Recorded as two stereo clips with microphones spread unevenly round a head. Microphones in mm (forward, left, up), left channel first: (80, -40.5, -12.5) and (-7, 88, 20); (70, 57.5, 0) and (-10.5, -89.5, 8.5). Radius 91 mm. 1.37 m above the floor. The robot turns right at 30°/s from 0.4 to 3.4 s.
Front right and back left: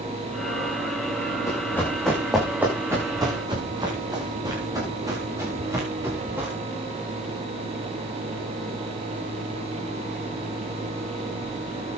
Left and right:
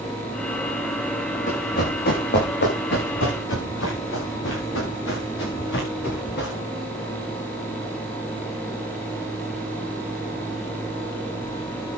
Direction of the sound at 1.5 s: 15° left.